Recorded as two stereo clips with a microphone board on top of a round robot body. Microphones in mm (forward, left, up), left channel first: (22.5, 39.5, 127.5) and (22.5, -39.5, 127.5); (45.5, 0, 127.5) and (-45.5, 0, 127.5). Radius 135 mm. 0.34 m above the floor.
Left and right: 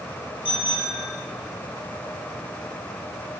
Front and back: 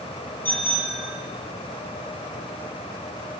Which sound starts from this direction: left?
A bicycle bell, at 0.5 s.